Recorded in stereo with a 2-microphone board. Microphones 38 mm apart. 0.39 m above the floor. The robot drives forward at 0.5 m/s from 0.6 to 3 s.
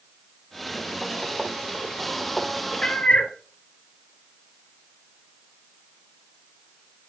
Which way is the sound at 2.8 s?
15° left (ahead or behind).